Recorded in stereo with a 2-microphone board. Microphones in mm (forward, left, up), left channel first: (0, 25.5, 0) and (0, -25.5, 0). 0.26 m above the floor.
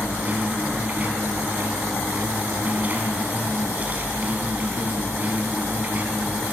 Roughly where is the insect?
Right.